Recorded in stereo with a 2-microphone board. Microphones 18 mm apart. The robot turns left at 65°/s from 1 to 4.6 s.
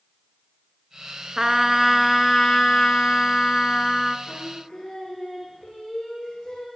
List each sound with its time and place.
1.4 s a trumpet: 150° right, 0.8 m; by 4.2 s 25° left, 0.8 m
4.3 s singing: 65° left (ahead or behind), 3.5 m; by 6.7 s 45° left (ahead or behind), 3.5 m